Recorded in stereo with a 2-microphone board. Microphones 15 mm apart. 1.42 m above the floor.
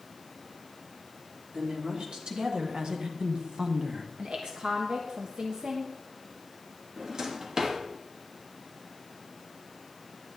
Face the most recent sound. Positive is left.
turn(degrees=-40)  # may be behind; listen again after turning